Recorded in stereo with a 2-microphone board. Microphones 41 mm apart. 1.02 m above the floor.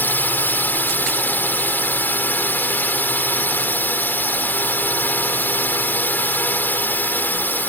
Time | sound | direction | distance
0.0 | a drone | 55° left (ahead or behind) | ?